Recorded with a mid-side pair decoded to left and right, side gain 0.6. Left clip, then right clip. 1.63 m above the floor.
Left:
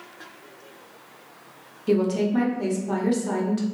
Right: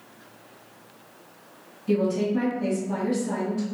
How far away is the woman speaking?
About 1.1 m.